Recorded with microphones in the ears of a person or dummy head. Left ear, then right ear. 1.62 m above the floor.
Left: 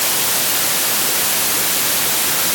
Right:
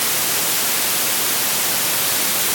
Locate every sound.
Only background noise.